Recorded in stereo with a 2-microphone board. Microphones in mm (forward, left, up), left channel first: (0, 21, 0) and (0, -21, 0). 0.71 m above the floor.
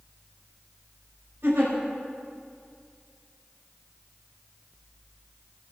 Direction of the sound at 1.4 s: 70° right (ahead or behind).